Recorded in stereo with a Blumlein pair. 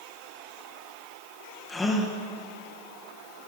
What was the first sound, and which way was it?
A gasp, 10° left.